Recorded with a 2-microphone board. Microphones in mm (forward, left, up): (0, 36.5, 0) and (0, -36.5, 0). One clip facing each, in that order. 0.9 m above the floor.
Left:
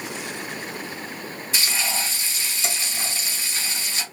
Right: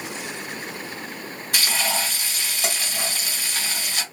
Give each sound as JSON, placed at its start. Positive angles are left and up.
{"t": 1.5, "sound": "frying", "side_deg": -65, "distance_m": 1.6}